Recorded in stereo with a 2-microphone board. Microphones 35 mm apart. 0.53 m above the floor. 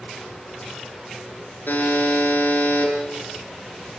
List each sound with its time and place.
1.7 s a buzzer: 75° left (ahead or behind), 5 m